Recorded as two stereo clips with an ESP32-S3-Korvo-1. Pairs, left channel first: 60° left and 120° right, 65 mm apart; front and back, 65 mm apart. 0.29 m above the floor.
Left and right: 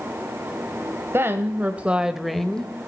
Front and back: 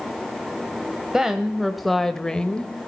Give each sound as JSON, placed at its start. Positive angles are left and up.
{"t": 1.1, "sound": "a woman speaking", "azimuth_deg": -105, "distance_m": 1.1}